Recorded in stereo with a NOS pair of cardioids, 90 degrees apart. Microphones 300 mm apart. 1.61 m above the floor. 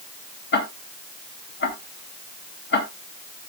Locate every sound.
0.5 s ticking: 40° left, 3 m